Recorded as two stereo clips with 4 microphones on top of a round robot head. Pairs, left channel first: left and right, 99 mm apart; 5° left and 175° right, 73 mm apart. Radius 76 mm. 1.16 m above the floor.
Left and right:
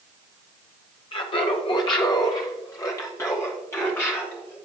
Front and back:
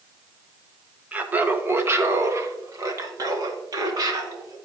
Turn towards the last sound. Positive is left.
turn(degrees=160)